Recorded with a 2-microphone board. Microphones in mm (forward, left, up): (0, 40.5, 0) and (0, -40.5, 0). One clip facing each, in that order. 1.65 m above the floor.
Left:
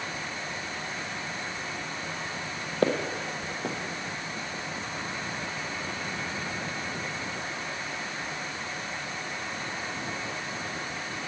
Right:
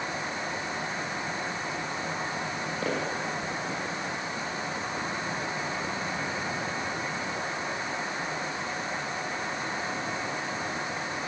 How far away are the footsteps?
About 3.5 m.